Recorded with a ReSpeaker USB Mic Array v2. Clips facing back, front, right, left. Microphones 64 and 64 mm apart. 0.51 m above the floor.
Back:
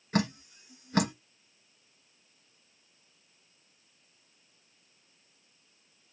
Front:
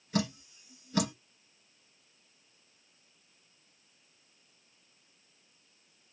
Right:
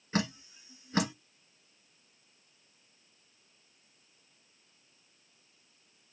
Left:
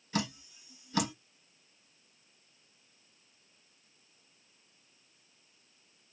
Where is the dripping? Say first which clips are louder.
Back 3 dB, right 2 dB; 145° right, 1.8 m.